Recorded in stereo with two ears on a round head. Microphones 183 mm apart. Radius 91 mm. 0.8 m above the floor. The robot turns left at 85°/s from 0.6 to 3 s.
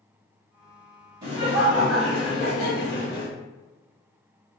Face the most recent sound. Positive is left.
turn(degrees=95)